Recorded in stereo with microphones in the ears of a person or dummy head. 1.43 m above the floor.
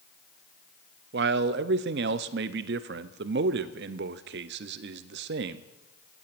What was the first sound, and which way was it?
A man speaking, 50° right (ahead or behind).